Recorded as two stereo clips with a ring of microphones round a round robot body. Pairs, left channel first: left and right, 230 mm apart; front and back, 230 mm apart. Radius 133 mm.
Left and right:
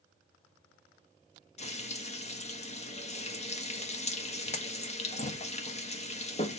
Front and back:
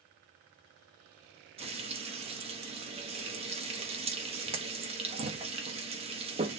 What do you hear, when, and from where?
1.6 s frying: 130° left, 1.3 m